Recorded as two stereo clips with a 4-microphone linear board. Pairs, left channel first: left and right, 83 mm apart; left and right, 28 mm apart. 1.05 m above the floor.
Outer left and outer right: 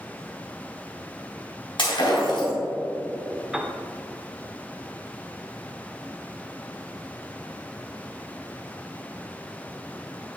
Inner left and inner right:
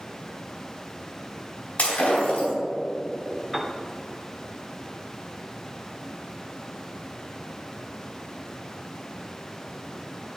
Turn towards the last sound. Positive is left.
turn(degrees=-10)  # may be behind; listen again after turning